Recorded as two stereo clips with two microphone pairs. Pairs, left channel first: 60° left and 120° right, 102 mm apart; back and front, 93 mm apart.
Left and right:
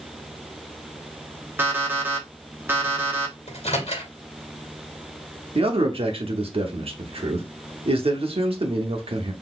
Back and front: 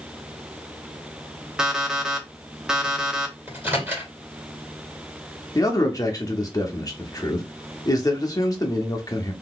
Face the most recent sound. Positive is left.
turn(degrees=-135)